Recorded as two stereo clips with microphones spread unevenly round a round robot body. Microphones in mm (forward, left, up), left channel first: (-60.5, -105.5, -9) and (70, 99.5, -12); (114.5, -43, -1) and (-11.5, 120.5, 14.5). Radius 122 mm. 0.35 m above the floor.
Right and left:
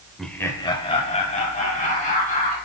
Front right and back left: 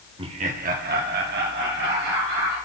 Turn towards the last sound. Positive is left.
turn(degrees=180)